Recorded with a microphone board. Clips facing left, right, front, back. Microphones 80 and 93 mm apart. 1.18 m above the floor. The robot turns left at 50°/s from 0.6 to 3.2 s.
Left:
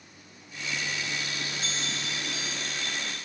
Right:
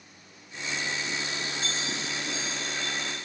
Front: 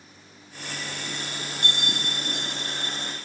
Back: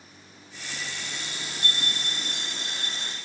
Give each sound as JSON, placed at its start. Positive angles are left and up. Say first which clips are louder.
{"t": 1.6, "sound": "a bell", "louder": "right 2 dB, front 3 dB", "azimuth_deg": 0, "distance_m": 1.3}